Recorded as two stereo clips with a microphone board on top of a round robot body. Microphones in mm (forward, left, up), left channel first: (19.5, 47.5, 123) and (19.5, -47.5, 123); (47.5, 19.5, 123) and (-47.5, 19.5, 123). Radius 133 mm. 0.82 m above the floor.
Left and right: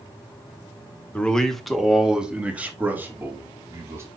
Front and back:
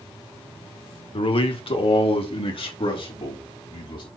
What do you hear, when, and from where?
1.1 s a man speaking: 10° left, 1.6 m; by 4.1 s 30° right, 3 m